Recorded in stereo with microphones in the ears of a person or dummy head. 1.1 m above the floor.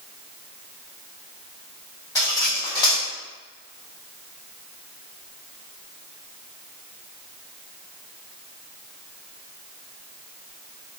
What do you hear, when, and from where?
2.1 s cutlery clinking: 20° left (ahead or behind), 1.5 m